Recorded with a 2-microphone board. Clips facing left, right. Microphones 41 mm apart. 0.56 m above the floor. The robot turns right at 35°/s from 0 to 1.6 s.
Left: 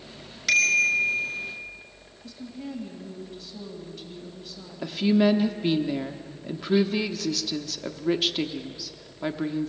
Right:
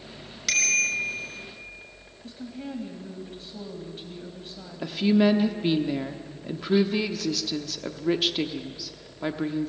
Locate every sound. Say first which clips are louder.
0.5 s a bicycle bell: left 4 dB; 5° left (ahead or behind), 6 m; by 1.2 s 20° right (ahead or behind), 6 m
2.2 s a woman speaking: even; 35° right (ahead or behind), 3.5 m
4.8 s a woman speaking: even; centre (ahead or behind), 0.8 m